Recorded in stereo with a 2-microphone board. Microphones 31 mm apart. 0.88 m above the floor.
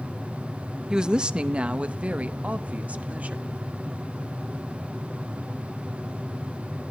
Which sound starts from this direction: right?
A woman speaking, at 0.9 s.